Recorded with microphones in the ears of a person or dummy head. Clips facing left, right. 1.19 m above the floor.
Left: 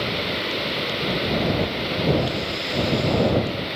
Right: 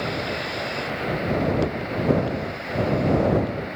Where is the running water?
45° left (ahead or behind).